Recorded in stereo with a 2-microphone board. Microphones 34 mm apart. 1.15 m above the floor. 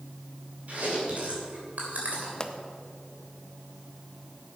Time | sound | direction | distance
0.7 | chewing | 50° right (ahead or behind) | 3 m
2.4 | a pop | 25° left (ahead or behind) | 0.7 m